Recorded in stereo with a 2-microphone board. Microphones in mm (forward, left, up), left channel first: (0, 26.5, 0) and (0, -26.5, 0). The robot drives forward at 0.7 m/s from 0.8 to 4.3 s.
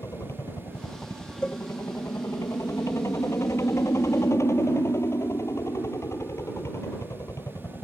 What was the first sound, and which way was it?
A helicopter, 60° left (ahead or behind).